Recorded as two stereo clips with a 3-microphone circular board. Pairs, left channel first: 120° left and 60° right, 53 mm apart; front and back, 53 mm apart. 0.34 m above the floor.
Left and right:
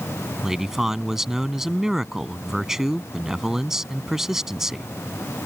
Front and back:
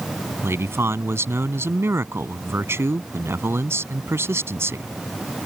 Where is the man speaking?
140° right.